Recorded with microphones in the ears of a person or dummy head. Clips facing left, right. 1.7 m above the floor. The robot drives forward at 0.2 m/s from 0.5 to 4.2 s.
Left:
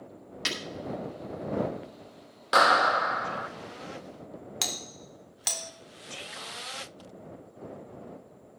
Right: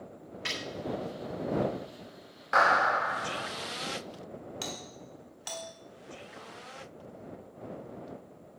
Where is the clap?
45° left (ahead or behind), 0.6 m; by 3.5 s 55° left (ahead or behind), 0.5 m.